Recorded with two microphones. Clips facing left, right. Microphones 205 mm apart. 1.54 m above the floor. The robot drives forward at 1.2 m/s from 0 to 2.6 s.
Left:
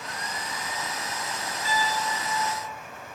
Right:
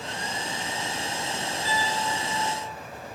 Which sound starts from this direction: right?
A piano, at 1.6 s.